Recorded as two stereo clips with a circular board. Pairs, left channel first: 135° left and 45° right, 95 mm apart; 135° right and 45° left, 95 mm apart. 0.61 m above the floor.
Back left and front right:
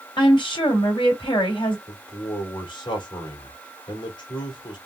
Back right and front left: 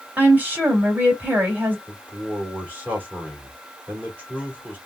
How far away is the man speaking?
About 2 m.